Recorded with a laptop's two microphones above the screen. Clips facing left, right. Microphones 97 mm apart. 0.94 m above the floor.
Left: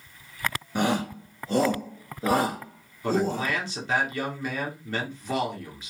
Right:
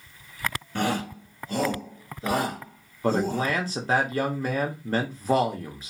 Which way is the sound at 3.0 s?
40° right (ahead or behind).